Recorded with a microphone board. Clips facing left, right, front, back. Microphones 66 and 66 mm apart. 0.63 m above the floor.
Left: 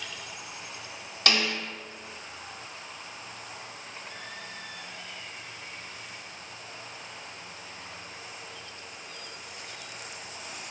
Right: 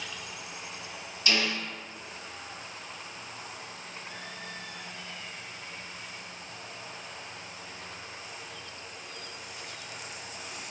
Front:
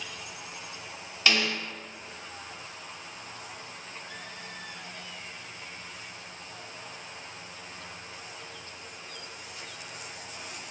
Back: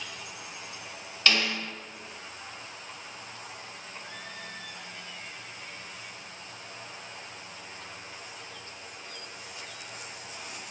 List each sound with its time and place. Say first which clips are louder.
1.3 s a snare drum: left 2 dB, even; 80° left, 0.9 m